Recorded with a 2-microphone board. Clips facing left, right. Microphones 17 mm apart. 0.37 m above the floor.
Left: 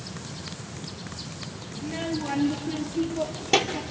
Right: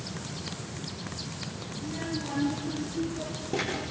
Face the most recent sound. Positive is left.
turn(degrees=60)  # may be behind; listen again after turning